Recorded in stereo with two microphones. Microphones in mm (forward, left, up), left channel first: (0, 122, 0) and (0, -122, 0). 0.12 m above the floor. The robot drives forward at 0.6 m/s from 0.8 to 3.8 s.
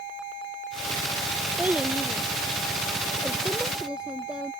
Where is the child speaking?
5° right (ahead or behind).